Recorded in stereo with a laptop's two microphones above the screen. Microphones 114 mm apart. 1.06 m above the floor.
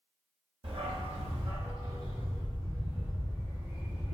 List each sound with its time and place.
0.6 s a dog barking: 50° right (ahead or behind), 0.7 m; by 4.1 s 20° right (ahead or behind), 2 m